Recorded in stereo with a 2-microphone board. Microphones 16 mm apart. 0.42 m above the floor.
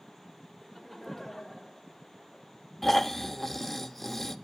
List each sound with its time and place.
0.6 s laughter: 10° left (ahead or behind), 1.4 m; by 2.5 s 40° left (ahead or behind), 2 m
2.8 s snoring: 20° left (ahead or behind), 0.6 m